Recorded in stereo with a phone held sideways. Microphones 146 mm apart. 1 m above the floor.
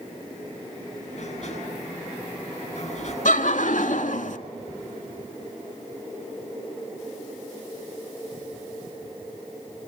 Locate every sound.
1.1 s a sliding door: 50° left (ahead or behind), 7.5 m
3.2 s laughter: 65° left (ahead or behind), 1.8 m